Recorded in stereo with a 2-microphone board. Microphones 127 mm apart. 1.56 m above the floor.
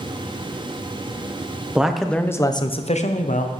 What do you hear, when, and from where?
1.8 s a man speaking: 10° right (ahead or behind), 1.0 m; by 3.5 s 85° left, 1.0 m